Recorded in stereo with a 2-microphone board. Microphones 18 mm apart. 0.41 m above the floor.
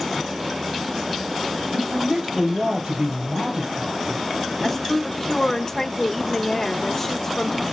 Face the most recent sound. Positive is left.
turn(degrees=20)  # may be behind; listen again after turning